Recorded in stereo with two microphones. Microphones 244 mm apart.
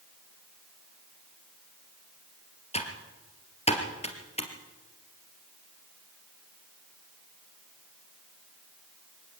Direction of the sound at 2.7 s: 25° left (ahead or behind).